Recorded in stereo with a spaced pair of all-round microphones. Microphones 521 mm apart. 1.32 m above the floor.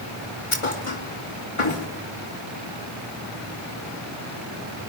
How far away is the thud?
About 4 m.